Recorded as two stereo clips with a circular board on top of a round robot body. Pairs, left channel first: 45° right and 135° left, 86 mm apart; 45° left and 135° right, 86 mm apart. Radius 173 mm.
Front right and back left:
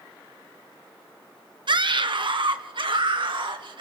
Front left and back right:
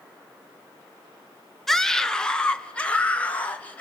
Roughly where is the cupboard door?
No cupboard door in this recording.